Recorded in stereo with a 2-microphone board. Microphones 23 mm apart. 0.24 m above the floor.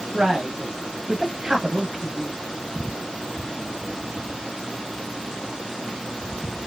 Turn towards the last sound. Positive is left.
turn(degrees=-25)  # may be behind; listen again after turning